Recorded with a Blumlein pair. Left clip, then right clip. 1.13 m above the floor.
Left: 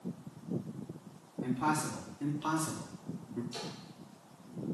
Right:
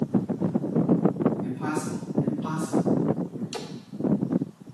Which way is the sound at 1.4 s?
15° left.